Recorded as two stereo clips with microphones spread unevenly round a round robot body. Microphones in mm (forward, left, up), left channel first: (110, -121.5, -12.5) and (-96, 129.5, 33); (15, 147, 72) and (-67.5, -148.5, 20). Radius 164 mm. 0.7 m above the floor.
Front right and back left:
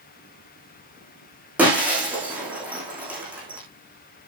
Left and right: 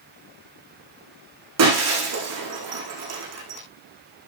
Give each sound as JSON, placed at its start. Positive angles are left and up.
{"t": 1.6, "sound": "breaking glass", "azimuth_deg": -145, "distance_m": 6.5}